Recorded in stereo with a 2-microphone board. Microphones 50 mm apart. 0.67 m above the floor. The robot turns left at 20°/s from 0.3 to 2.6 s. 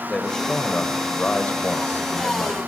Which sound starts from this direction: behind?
A man speaking, at 0.1 s.